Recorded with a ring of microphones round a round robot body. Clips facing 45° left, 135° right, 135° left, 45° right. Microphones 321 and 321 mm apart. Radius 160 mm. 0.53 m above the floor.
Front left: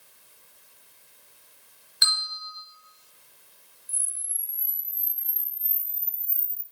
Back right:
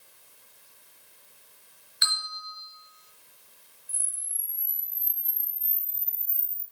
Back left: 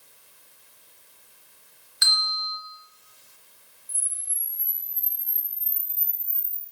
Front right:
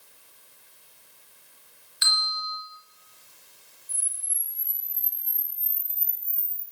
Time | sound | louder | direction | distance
2.0 | a bell | front left 1 dB, even | 95° left | 4.5 m
3.9 | a camera shutter | even, even | 80° left | 3.5 m